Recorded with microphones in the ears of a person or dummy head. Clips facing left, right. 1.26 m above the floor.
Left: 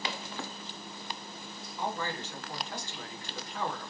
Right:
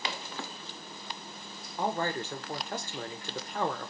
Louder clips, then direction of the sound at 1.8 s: Right 4 dB; 45° right (ahead or behind).